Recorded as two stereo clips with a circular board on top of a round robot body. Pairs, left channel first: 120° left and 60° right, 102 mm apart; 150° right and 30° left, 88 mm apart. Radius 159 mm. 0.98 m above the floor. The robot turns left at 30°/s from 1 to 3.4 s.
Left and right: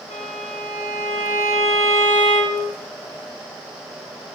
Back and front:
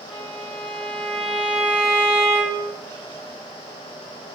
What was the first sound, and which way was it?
A violin, 130° left.